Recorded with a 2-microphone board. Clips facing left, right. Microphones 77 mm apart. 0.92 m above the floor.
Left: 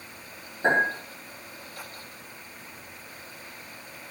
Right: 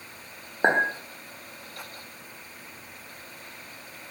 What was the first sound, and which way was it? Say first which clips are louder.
A clink: right 1 dB; 60° right (ahead or behind).